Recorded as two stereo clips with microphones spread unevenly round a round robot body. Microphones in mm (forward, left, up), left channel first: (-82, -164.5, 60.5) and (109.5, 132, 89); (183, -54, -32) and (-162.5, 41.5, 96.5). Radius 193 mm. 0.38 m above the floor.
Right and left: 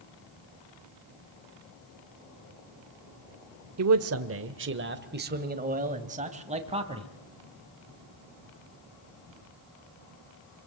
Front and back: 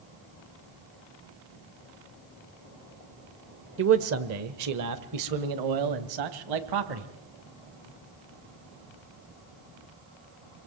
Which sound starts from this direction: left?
A man speaking, at 3.8 s.